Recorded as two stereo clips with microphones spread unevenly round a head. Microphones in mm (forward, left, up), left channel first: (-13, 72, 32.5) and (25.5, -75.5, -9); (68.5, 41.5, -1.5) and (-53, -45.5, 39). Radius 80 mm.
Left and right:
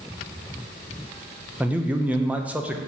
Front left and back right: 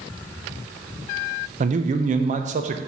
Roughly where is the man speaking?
Behind right.